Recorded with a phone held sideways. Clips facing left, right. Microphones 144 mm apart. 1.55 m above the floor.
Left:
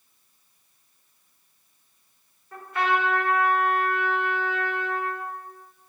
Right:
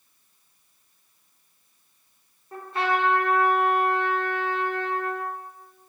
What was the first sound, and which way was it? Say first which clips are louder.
A trumpet: even; 30° right (ahead or behind).